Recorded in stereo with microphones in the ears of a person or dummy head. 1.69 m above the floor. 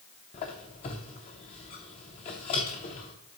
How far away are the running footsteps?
I don't hear running footsteps.